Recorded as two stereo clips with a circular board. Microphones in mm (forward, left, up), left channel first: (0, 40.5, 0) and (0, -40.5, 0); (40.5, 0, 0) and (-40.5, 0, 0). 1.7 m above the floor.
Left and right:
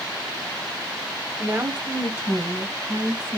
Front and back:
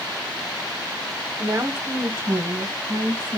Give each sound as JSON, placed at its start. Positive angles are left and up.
{"t": 1.4, "sound": "a woman speaking", "azimuth_deg": -130, "distance_m": 1.0}